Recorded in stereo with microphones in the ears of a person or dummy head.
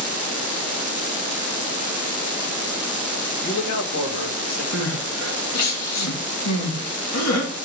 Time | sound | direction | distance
3.4 | a man speaking | 60° left (ahead or behind) | 1.0 m
4.7 | crying | 80° left | 2.5 m